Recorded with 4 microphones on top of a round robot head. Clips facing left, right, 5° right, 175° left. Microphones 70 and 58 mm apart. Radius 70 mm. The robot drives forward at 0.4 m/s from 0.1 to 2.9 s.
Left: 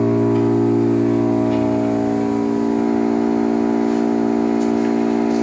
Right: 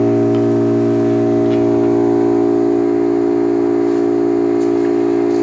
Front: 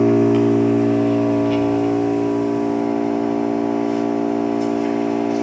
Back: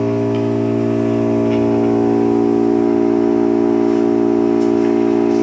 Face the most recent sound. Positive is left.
turn(degrees=-140)